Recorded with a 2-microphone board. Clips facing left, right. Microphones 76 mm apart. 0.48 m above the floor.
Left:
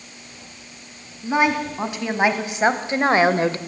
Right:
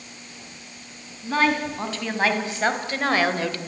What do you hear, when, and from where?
1.2 s a woman speaking: 15° left (ahead or behind), 3.5 m; by 3.6 s 30° left (ahead or behind), 1.3 m